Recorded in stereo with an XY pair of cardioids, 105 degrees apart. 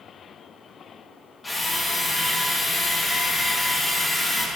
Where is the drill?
20° left, 1.5 m.